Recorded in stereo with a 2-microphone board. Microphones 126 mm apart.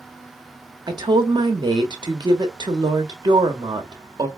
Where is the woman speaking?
35° right (ahead or behind), 1.0 m.